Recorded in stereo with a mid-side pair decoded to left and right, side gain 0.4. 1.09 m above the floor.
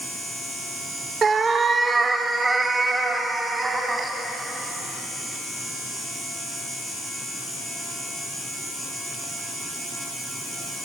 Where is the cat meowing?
45° right, 1.9 m; by 4.1 s 25° right, 4.5 m.